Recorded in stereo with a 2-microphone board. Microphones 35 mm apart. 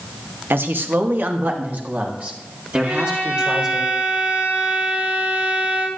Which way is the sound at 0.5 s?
85° right.